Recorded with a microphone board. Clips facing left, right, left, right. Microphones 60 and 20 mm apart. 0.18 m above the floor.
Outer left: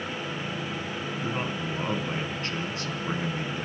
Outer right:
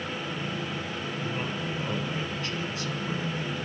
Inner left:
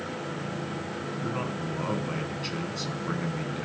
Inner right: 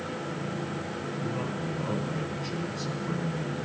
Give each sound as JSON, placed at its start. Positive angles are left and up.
{"t": 1.2, "sound": "a man speaking", "side_deg": 40, "distance_m": 1.9}